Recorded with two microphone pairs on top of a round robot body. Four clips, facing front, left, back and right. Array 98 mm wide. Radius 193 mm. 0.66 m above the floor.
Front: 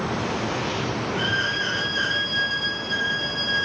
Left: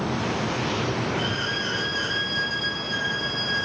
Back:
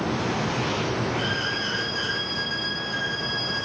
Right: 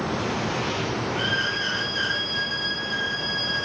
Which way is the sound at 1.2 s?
35° right.